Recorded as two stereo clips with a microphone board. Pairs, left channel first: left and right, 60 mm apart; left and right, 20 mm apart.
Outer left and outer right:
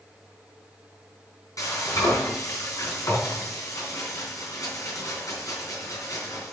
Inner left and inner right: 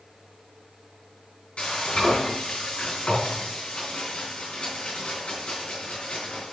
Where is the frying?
75° left (ahead or behind), 3.5 m.